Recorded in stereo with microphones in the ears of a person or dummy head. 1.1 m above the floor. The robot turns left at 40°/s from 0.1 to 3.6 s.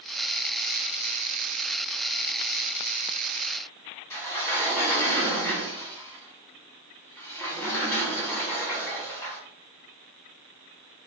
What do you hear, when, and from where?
4.1 s a sliding door: 15° left (ahead or behind), 1.2 m